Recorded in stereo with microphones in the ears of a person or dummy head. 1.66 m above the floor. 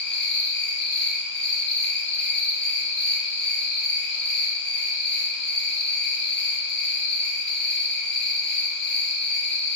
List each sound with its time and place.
0.0 s an insect: 10° left (ahead or behind), 1.1 m